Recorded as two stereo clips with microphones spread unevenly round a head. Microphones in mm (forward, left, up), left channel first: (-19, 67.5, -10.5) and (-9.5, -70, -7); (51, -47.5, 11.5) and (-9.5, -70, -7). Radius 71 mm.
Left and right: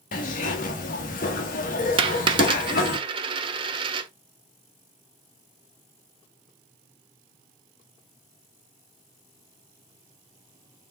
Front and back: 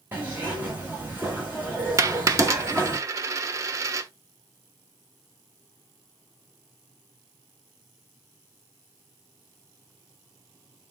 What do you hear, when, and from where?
0.1 s a zipper: 125° left, 0.9 m
2.0 s a dropped coin: 125° right, 0.7 m